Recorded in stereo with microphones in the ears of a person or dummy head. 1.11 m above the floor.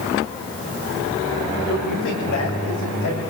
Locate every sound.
1.7 s a man speaking: 60° left (ahead or behind), 6 m; by 3.2 s 65° left (ahead or behind), 7.5 m